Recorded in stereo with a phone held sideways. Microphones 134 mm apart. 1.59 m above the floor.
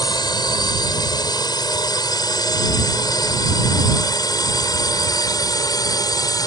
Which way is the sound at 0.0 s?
30° left (ahead or behind).